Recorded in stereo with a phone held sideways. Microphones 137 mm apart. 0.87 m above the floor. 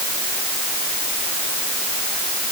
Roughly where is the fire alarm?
I don't hear a fire alarm.